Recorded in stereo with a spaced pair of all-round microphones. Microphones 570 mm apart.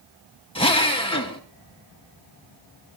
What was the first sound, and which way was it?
A drill, 10° left (ahead or behind).